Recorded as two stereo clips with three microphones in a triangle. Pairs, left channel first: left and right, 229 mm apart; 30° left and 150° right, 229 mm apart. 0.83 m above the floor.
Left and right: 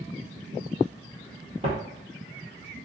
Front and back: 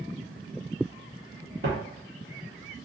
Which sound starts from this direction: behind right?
Footsteps, at 1.6 s.